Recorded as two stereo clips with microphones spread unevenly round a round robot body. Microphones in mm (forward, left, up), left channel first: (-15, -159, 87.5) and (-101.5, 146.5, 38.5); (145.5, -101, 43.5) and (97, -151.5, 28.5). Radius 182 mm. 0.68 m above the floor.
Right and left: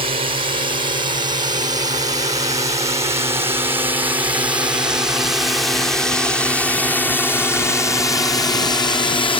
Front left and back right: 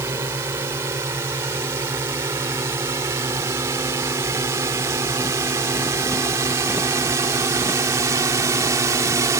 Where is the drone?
170° left; by 9.4 s 150° right.